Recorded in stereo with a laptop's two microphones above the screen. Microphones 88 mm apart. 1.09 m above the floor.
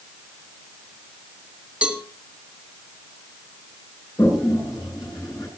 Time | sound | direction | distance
1.8 | a cowbell | 15° right (ahead or behind) | 1.4 m
4.2 | a toilet flushing | 45° left (ahead or behind) | 7.5 m